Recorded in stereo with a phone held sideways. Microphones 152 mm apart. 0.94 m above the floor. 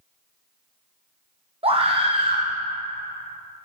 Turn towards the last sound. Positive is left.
turn(degrees=-40)  # may be behind; listen again after turning